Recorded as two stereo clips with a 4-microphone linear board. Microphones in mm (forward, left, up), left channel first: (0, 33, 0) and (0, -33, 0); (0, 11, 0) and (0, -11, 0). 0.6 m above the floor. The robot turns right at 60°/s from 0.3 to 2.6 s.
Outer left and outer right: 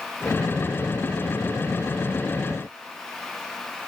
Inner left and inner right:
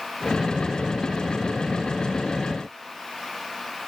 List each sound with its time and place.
Only background noise.